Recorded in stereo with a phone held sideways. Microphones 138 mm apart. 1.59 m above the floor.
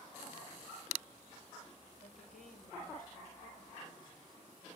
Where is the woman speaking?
85° left, 7 m.